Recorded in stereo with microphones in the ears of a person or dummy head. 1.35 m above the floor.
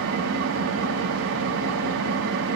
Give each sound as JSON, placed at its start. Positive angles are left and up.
{"t": 0.0, "sound": "an engine running", "side_deg": -70, "distance_m": 1.2}